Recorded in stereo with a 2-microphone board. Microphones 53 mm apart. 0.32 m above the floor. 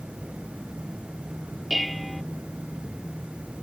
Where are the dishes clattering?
5° right (ahead or behind).